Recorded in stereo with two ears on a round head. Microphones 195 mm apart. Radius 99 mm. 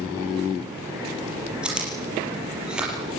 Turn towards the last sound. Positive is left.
turn(degrees=-5)  # may be behind; listen again after turning